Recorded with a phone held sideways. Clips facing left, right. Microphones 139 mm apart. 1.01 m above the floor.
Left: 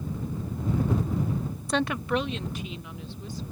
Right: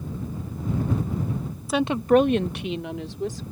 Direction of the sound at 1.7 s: Centre (ahead or behind).